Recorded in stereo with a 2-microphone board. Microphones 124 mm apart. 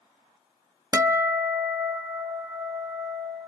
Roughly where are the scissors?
I don't hear scissors.